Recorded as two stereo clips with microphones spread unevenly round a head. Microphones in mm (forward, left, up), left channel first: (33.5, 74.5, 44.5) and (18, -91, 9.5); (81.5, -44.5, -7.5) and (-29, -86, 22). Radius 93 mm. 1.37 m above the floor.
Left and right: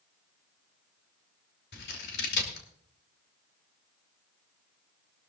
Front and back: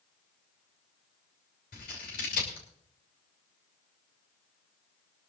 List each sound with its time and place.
1.7 s scissors: 70° left, 2.5 m